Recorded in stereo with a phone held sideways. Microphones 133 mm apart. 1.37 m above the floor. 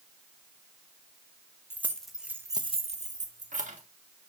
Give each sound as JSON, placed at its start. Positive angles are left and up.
{"t": 1.7, "sound": "keys jangling", "side_deg": 15, "distance_m": 1.3}